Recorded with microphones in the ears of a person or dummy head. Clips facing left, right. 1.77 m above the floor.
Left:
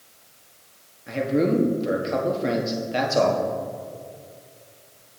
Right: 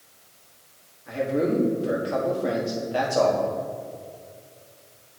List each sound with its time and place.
1.1 s a man speaking: 30° left (ahead or behind), 1.3 m